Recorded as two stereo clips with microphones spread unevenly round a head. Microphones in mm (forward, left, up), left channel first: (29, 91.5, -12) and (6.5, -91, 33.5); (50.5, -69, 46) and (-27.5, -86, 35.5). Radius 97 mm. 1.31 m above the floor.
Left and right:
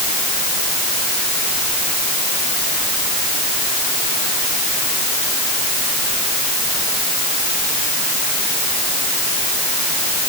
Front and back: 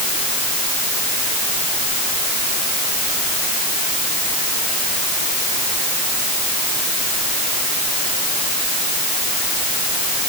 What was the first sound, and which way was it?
Only background noise.